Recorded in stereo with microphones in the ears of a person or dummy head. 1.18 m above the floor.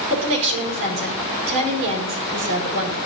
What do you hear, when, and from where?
0.1 s a woman speaking: 40° right (ahead or behind), 4.5 m